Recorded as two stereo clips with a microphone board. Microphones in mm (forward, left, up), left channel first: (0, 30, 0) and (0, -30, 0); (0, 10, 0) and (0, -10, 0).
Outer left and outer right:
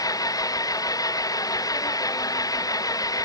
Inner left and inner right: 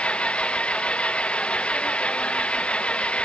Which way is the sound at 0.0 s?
85° left.